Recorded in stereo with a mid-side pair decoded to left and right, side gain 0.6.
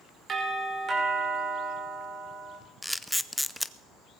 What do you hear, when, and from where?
0.3 s a doorbell: 40° right, 5.5 m
2.8 s a camera shutter: straight ahead, 0.6 m